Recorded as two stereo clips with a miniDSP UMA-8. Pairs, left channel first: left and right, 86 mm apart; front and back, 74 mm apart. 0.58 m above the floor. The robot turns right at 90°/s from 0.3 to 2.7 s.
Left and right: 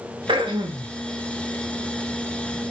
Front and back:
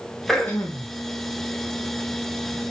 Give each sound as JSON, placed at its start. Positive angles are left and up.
{"t": 0.3, "sound": "throat clearing", "azimuth_deg": -90, "distance_m": 0.5}